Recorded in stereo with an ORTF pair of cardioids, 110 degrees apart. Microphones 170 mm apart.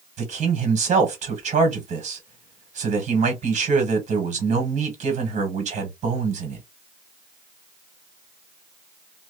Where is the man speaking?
45° right, 1.6 m.